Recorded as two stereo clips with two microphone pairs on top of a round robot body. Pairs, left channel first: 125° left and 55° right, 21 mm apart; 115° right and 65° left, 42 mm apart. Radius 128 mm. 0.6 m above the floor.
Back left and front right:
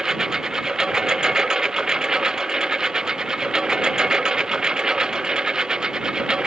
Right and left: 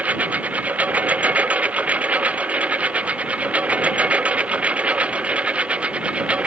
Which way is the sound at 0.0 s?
10° left.